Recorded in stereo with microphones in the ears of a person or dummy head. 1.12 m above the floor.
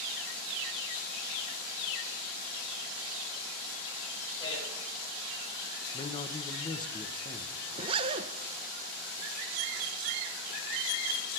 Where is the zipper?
30° right (ahead or behind), 0.8 m.